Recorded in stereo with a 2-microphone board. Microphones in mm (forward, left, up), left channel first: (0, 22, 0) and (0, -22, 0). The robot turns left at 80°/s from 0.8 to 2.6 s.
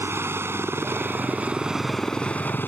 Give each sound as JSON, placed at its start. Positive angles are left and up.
{"t": 0.0, "sound": "a helicopter", "azimuth_deg": -95}